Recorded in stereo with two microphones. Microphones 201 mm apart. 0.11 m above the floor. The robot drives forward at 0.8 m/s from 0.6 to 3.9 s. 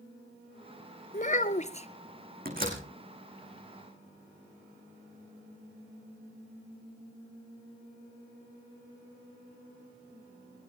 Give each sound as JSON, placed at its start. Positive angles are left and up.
{"t": 1.1, "sound": "a child speaking", "side_deg": 40, "distance_m": 1.0}
{"t": 2.5, "sound": "a door slam", "side_deg": -45, "distance_m": 5.0}